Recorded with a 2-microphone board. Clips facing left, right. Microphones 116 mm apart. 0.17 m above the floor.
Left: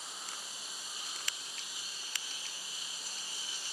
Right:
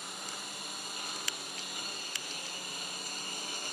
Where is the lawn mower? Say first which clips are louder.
Right 4 dB; 60° right (ahead or behind); by 3.7 s 55° right (ahead or behind).